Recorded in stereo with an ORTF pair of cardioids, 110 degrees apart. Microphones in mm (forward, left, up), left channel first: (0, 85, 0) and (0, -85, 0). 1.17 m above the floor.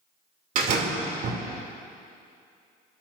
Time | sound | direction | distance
0.6 | a door slam | 55° right | 2.5 m